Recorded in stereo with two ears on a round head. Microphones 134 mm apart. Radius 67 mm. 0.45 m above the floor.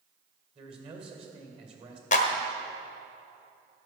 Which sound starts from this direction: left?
A clap, at 2.1 s.